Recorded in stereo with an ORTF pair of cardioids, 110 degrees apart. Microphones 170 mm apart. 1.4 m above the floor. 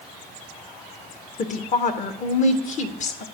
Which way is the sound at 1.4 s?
45° left.